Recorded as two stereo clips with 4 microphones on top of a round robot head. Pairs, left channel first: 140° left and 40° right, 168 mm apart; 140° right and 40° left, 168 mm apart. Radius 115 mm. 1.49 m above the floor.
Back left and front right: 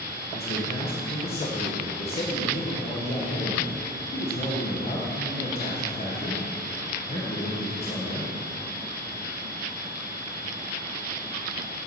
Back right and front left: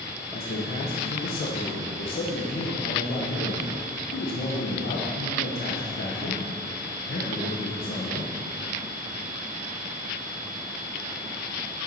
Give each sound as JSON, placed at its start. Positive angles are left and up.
{"t": 0.3, "sound": "a man speaking", "azimuth_deg": -170, "distance_m": 1.1}